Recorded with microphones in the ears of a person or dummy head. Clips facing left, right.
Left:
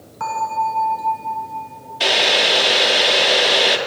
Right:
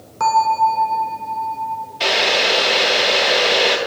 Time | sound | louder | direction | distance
0.2 | a bell | right 6 dB | 75° right (ahead or behind) | 3 m
2.0 | boiling | even | 5° left (ahead or behind) | 1.7 m